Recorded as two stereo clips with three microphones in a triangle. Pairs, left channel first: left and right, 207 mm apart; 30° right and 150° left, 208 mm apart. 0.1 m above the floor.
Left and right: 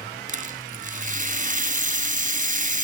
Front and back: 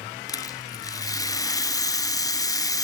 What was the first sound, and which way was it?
A rattle, 95° right.